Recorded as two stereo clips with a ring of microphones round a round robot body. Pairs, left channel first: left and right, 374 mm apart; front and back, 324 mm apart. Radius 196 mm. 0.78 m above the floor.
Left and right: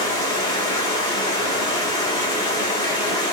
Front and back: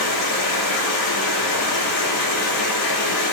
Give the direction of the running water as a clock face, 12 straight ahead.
12 o'clock.